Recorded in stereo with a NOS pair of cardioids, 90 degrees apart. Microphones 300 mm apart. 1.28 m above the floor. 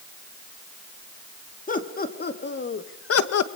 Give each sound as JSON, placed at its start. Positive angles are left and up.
{"t": 1.7, "sound": "laughter", "azimuth_deg": 25, "distance_m": 3.5}